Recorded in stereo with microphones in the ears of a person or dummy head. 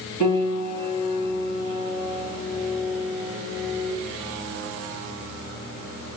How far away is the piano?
About 1.9 m.